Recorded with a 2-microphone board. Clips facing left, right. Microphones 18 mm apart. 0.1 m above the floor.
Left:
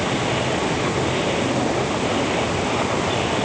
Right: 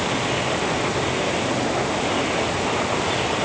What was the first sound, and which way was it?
Only background noise.